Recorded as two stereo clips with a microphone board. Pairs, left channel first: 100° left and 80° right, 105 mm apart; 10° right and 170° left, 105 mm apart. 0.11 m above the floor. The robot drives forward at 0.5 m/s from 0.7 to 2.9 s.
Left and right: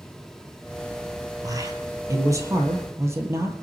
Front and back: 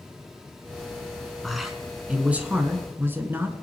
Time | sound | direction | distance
1.4 | a man speaking | 100° right | 1.8 m